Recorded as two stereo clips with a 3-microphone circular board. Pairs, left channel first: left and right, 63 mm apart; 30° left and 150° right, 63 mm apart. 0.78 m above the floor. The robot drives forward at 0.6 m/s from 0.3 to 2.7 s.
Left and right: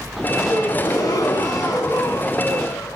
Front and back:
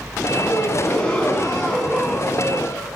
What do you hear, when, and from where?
0.5 s a gasp: 100° left, 4.5 m; by 3.0 s 115° left, 4.5 m